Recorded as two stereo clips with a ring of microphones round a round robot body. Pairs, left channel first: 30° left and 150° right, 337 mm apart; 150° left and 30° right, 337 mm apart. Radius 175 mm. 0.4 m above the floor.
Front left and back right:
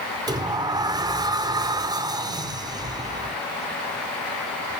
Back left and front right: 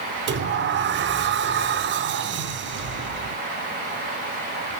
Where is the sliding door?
75° right, 0.5 m.